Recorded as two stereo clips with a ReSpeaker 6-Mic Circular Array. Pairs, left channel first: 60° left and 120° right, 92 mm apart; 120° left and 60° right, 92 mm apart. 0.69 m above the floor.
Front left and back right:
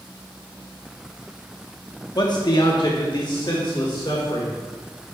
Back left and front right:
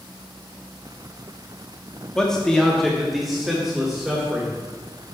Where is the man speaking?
40° left, 0.8 m; by 4.5 s 25° left, 1.9 m.